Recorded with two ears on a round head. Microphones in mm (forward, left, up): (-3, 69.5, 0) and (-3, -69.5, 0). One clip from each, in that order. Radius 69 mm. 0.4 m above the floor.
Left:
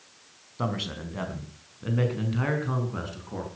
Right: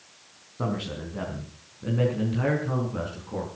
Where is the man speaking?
50° left (ahead or behind), 4.5 m; by 3.5 s 20° left (ahead or behind), 6 m.